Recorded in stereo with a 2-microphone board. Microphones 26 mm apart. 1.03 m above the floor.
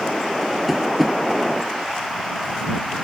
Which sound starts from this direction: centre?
Tapping, at 0.7 s.